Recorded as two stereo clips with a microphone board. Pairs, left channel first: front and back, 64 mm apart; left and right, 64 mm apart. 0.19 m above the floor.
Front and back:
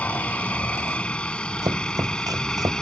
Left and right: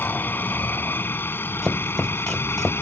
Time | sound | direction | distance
0.0 | a helicopter | 55° left | ?
1.6 | chopping | 175° left | ?